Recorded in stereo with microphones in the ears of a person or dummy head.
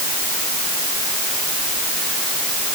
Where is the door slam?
I don't hear a door slam.